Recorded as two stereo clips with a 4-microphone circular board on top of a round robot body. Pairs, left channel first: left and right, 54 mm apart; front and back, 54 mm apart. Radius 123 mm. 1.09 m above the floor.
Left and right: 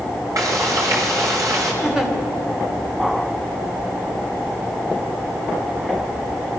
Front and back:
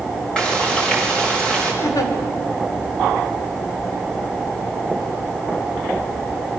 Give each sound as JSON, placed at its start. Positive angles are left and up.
{"t": 0.4, "sound": "frying", "azimuth_deg": -75, "distance_m": 6.0}
{"t": 1.8, "sound": "a giggle", "azimuth_deg": -10, "distance_m": 2.5}